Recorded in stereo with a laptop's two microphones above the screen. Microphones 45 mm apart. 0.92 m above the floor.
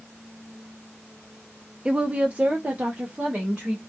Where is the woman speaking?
15° right (ahead or behind), 0.8 m; by 3.8 s 20° right (ahead or behind), 1.8 m.